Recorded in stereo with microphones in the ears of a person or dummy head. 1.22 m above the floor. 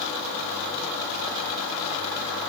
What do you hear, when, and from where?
Only background noise.